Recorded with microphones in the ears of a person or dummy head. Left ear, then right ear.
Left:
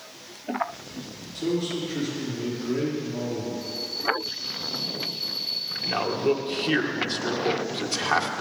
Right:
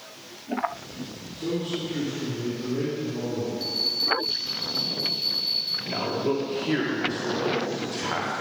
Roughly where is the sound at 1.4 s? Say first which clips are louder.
Left 2 dB; left.